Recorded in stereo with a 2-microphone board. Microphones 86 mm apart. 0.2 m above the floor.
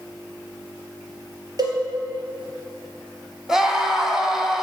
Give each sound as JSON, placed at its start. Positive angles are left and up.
{"t": 1.6, "sound": "a cowbell", "side_deg": -50, "distance_m": 2.5}
{"t": 3.5, "sound": "a scream", "side_deg": -5, "distance_m": 1.3}